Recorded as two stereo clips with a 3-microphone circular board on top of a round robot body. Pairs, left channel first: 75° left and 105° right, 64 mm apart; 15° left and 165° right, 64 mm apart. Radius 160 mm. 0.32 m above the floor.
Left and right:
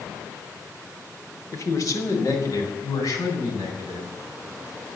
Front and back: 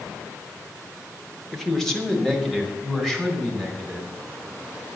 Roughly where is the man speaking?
Left.